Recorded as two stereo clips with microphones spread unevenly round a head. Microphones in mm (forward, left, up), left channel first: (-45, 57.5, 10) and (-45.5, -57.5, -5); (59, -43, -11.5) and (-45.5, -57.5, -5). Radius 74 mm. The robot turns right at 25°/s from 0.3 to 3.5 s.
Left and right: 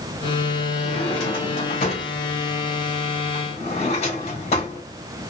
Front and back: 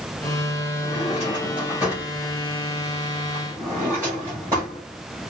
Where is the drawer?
50° left, 3 m; by 4.8 s 120° left, 3 m.